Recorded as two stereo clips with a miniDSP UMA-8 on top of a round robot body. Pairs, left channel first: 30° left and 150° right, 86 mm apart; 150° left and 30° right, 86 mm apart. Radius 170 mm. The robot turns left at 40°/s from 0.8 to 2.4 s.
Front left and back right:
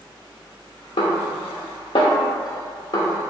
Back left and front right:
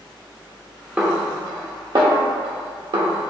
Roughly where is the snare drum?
Ahead left.